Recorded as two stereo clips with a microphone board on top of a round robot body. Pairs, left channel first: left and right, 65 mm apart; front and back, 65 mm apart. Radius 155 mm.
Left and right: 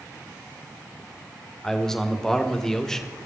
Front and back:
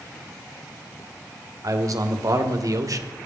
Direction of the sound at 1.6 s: 170° left.